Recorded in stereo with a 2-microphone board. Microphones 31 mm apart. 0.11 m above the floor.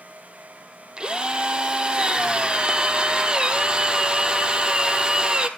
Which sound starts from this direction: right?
A drill, at 1.0 s.